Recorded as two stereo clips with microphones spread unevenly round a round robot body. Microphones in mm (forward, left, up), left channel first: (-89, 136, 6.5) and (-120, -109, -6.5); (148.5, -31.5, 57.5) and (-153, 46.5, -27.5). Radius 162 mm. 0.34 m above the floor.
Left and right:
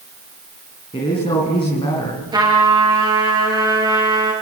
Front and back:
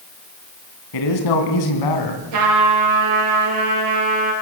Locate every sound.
0.9 s a man speaking: 5° left, 4.5 m
2.3 s a trumpet: 170° right, 5 m